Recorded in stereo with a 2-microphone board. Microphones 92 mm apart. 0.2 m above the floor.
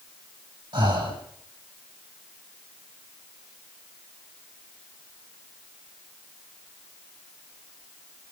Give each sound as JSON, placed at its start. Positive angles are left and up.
{"t": 0.7, "sound": "breathing", "side_deg": -50, "distance_m": 7.5}